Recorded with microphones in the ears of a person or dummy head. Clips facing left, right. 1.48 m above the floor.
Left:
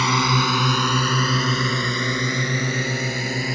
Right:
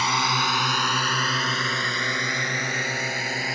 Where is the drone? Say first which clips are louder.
Left 5 dB; 60° left (ahead or behind); by 3.6 s 90° left.